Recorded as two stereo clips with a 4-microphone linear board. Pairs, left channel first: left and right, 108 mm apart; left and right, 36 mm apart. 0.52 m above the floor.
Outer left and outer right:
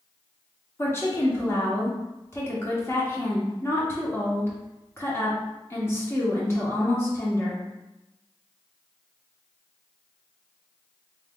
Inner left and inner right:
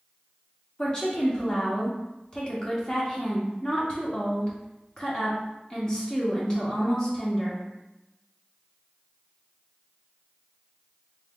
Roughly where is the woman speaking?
Left.